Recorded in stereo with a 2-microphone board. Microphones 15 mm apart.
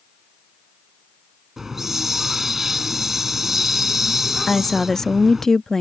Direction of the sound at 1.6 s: 20° right (ahead or behind).